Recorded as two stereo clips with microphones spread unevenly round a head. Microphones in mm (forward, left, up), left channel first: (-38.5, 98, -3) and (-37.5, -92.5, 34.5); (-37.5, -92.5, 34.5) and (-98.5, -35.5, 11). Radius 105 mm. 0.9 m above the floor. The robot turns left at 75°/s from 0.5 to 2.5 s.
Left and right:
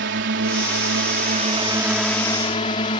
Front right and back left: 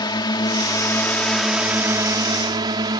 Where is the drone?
65° right; by 3.0 s 145° left.